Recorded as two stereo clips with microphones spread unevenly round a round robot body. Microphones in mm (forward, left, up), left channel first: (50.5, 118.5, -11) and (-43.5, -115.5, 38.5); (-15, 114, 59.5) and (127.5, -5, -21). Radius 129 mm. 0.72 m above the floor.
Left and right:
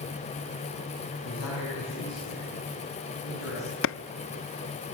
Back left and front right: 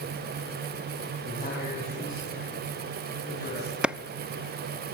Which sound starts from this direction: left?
A man speaking, at 1.2 s.